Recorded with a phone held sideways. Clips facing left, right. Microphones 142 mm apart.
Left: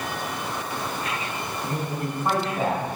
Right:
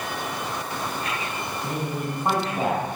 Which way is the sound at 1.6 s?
20° right (ahead or behind).